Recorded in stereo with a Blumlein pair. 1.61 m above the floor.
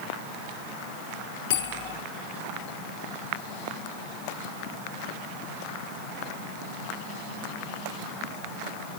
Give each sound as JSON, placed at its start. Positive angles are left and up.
{"t": 1.5, "sound": "a bell", "azimuth_deg": 50, "distance_m": 4.5}